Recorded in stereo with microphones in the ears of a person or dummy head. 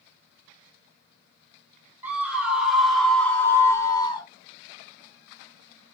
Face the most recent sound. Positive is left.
turn(degrees=25)  # may be behind; listen again after turning